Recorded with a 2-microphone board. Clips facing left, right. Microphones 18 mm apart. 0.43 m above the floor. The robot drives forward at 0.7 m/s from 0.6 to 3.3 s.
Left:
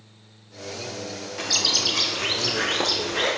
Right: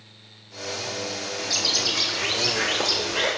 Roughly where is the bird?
Left.